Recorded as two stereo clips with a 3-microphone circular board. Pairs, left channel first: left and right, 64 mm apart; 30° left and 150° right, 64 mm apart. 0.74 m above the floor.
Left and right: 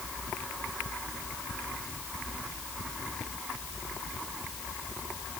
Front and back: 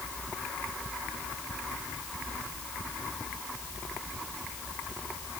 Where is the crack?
No crack in this recording.